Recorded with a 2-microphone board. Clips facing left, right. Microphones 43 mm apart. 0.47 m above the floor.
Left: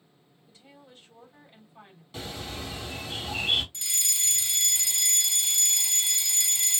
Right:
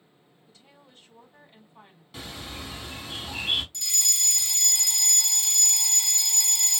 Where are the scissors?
No scissors in this recording.